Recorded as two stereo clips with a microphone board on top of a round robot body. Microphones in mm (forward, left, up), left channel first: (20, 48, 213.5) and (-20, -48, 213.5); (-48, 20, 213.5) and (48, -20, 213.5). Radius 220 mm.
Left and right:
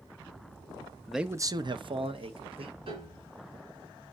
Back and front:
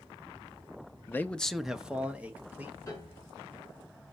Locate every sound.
1.1 s a man speaking: 145° left, 0.8 m; by 2.8 s 95° right, 2.5 m
2.9 s a piano: 140° right, 3.5 m